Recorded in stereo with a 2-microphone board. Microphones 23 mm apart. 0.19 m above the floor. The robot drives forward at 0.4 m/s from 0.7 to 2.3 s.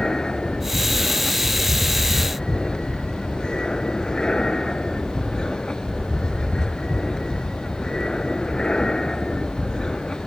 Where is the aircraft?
30° left (ahead or behind).